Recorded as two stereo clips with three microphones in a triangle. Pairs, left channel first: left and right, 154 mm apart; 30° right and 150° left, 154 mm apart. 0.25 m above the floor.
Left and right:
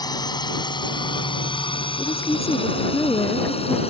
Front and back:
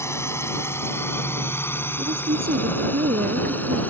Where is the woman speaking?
160° left.